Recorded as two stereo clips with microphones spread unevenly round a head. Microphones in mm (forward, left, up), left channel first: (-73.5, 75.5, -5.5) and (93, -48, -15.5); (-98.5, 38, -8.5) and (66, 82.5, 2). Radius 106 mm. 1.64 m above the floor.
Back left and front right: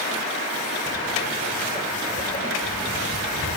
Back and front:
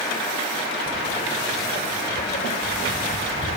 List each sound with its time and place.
0.9 s footsteps: 140° right, 2 m; by 3.6 s 170° left, 2.5 m